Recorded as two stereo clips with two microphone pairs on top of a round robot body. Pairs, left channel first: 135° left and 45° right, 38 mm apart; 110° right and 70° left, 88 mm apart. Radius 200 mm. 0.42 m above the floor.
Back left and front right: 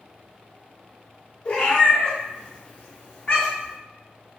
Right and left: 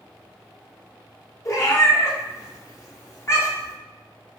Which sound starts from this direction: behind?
A cat meowing, at 1.4 s.